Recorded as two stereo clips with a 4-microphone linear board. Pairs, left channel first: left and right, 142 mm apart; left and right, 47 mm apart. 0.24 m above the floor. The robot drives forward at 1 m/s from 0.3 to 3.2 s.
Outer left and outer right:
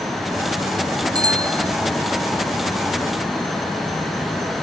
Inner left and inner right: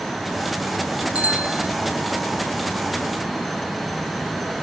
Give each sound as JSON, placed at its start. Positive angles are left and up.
{"t": 1.1, "sound": "a bicycle bell", "side_deg": -30}